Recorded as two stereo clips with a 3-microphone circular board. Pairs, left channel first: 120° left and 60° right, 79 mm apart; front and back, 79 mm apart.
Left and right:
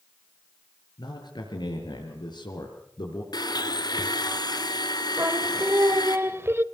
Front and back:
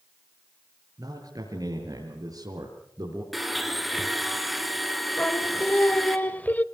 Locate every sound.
1.0 s a man speaking: 145° left, 5.5 m
3.3 s a blender: 90° left, 2.5 m
5.2 s singing: 50° right, 0.9 m